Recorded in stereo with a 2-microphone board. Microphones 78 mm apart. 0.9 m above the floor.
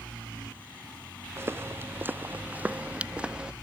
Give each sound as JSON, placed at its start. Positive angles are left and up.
{"t": 1.4, "sound": "footsteps", "side_deg": -30}